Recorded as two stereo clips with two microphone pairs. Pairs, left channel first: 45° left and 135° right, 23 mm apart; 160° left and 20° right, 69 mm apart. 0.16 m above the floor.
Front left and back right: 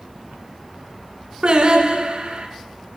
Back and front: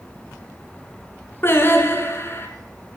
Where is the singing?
160° right, 1.8 m.